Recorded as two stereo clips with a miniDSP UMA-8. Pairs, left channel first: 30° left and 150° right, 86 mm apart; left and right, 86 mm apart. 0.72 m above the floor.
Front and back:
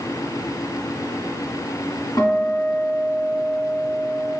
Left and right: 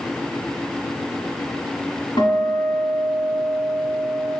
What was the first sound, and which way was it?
A guitar, 65° left.